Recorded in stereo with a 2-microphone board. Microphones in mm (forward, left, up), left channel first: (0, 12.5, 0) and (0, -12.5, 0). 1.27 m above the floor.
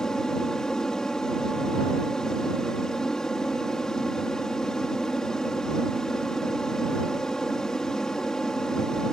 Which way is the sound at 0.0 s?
20° left (ahead or behind).